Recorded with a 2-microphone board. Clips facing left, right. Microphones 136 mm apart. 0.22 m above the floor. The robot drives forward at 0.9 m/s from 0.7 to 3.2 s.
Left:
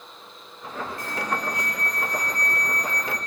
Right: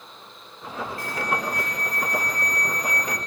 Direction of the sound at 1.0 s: 20° left (ahead or behind).